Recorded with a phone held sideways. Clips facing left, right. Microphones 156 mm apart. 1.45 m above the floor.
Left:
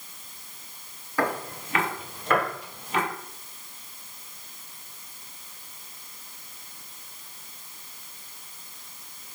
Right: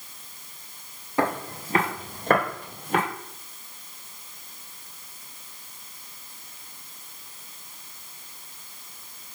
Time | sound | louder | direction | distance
1.2 | footsteps | right 2 dB | 25° right (ahead or behind) | 1.5 m